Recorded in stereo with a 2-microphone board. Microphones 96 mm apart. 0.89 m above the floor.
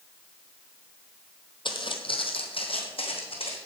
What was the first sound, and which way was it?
Footsteps, 50° left (ahead or behind).